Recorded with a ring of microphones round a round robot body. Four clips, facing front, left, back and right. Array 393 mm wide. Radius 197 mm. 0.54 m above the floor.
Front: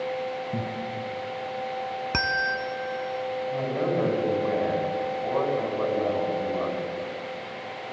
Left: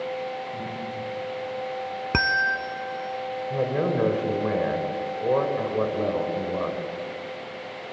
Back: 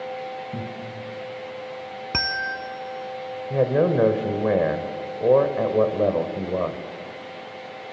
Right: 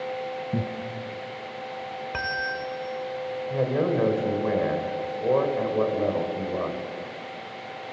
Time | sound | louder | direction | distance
0.5 | laughter | right 5 dB, front 2 dB | 80° right | 5 m
2.1 | a bell | left 7 dB, front 1 dB | 95° left | 0.9 m
3.5 | a man speaking | right 1 dB, back 9 dB | 175° left | 3 m